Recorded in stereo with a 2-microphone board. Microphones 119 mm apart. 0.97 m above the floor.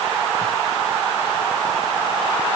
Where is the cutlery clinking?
No cutlery clinking in this recording.